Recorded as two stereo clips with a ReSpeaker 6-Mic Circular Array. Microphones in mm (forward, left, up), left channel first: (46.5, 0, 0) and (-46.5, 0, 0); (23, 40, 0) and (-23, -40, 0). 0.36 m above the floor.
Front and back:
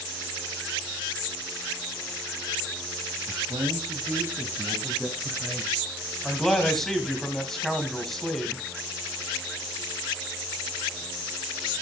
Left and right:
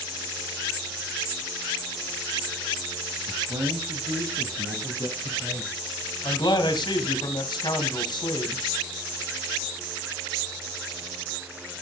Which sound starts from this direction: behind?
A man speaking, at 3.3 s.